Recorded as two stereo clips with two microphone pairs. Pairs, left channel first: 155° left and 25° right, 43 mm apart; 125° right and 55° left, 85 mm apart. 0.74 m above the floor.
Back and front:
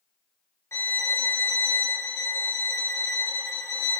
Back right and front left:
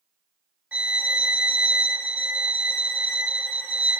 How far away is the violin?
About 1.3 m.